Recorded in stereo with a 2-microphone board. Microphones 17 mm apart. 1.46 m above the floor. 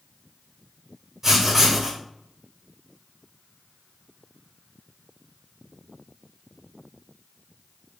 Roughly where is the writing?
Right.